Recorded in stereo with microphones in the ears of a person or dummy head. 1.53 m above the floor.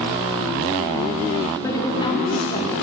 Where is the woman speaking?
10° left (ahead or behind), 2.5 m; by 2.7 s 35° left (ahead or behind), 2.5 m.